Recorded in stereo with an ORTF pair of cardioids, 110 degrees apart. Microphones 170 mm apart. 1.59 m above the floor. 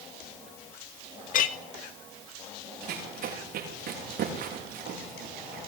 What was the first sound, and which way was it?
A clink, 55° left.